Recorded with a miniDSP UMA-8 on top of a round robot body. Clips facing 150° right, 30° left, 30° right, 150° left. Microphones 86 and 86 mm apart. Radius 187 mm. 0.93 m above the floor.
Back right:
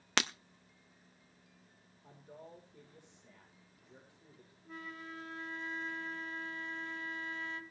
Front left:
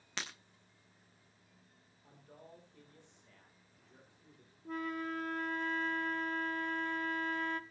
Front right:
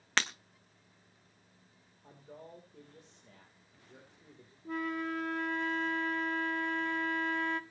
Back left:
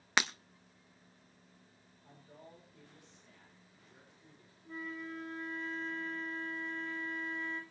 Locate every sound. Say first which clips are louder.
0.2 s breaking glass: back right 10 dB, back left 1 dB; 130° right, 0.5 m
2.0 s a man speaking: back right 4 dB, front right 5 dB; 80° right, 3.5 m
4.7 s a flute: front left 9 dB, front right 8 dB; 5° right, 1.1 m